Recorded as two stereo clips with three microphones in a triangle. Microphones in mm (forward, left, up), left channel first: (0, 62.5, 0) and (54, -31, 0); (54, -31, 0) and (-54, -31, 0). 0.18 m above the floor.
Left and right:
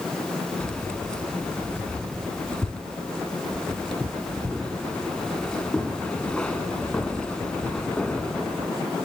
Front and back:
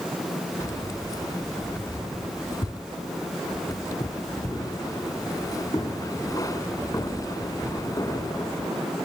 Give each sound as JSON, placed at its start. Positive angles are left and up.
{"t": 0.6, "sound": "keys jangling", "azimuth_deg": 40, "distance_m": 1.5}